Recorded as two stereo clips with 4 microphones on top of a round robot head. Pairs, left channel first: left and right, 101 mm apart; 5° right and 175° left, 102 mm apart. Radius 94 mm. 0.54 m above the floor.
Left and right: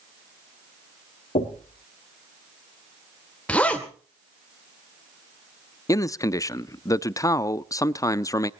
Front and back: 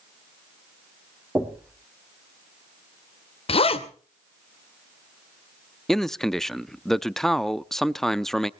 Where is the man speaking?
75° left, 0.7 m.